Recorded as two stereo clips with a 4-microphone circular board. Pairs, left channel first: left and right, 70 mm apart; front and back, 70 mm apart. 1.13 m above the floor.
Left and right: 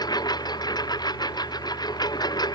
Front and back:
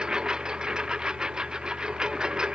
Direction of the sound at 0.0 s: 100° left.